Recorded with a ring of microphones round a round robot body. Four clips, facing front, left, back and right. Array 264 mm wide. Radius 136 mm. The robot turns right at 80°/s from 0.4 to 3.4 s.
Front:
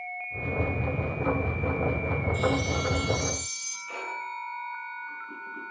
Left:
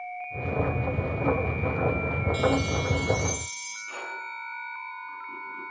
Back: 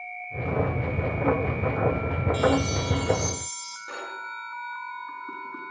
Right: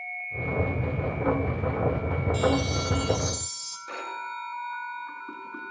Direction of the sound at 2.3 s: 170° right.